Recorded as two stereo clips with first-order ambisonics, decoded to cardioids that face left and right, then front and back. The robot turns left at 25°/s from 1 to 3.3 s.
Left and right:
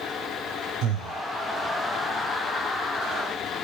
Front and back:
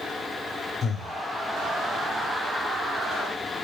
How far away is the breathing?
About 1.2 m.